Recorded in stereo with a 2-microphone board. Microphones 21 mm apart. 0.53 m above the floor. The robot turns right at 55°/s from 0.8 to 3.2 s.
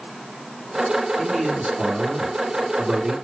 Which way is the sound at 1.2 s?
150° right.